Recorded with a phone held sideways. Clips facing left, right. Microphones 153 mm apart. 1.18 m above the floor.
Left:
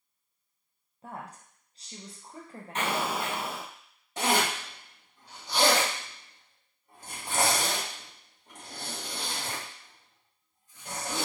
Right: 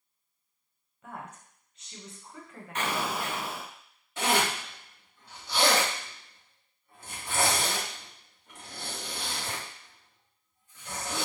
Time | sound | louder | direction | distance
1.0 | a woman speaking | left 1 dB | 35° left (ahead or behind) | 0.9 m
2.8 | an explosion | left 1 dB | 30° left (ahead or behind) | 1.9 m
4.2 | a zipper | even | 40° left (ahead or behind) | 1.7 m